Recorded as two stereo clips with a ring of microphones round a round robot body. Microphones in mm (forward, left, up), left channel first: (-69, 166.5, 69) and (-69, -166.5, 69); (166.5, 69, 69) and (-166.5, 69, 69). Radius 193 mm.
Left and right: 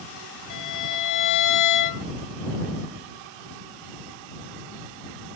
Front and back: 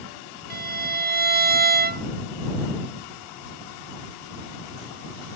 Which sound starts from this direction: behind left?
A violin, at 0.5 s.